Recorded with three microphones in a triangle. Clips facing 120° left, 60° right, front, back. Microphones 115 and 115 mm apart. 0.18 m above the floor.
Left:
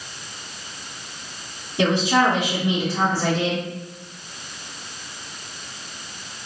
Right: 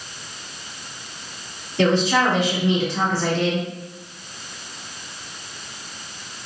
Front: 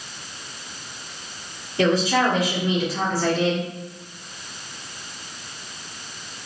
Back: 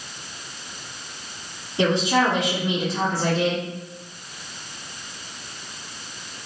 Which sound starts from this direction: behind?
A woman speaking, at 1.8 s.